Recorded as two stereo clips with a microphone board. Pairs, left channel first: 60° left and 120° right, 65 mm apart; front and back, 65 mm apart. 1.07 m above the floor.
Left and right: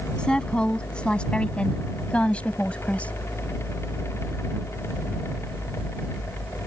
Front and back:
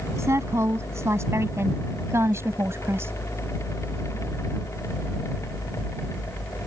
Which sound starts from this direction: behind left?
A woman speaking, at 0.2 s.